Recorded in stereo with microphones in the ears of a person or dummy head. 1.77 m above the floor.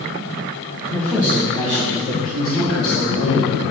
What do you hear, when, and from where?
0.9 s a woman speaking: 5° left (ahead or behind), 1.6 m; by 3.6 s 70° left (ahead or behind), 2 m